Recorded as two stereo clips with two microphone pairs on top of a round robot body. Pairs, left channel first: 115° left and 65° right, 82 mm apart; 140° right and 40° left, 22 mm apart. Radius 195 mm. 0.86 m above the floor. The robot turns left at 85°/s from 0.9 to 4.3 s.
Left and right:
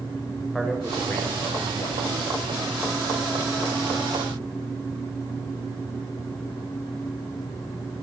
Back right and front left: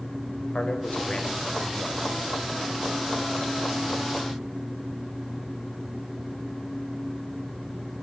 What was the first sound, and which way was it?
A man speaking, 155° right.